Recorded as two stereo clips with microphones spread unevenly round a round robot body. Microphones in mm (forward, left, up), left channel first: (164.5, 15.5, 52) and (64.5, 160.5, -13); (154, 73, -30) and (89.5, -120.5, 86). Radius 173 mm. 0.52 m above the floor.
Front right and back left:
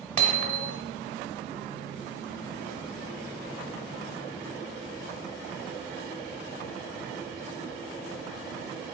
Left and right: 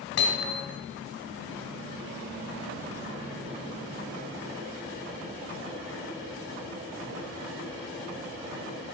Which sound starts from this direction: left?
Hammering, at 0.2 s.